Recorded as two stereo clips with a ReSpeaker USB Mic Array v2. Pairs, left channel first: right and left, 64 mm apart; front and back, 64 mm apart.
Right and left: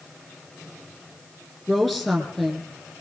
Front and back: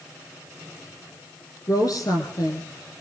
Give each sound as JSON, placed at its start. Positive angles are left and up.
{"t": 1.7, "sound": "a woman speaking", "azimuth_deg": -5, "distance_m": 3.0}